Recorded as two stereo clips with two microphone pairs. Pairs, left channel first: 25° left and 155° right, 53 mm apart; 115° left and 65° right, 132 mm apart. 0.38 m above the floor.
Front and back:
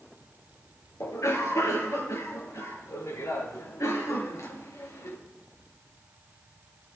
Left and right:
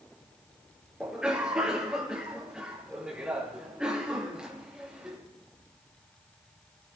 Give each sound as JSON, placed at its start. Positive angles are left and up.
{"t": 1.0, "sound": "a cough", "azimuth_deg": 20, "distance_m": 5.5}